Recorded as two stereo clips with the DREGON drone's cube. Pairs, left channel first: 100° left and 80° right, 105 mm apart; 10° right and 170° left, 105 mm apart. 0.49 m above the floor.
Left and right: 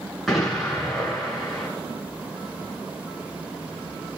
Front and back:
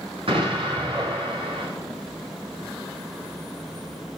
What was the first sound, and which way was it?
An explosion, 170° right.